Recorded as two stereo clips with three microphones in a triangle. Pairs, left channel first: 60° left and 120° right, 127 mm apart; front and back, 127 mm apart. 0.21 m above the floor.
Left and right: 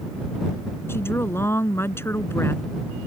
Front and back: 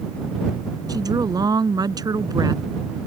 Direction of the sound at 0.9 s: 125° left.